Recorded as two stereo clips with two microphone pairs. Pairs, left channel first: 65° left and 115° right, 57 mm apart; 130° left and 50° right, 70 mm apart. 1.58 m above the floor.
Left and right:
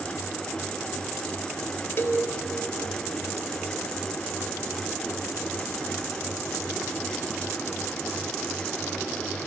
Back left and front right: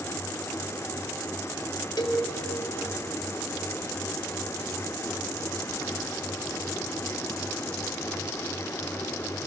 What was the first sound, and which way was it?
A cowbell, 115° left.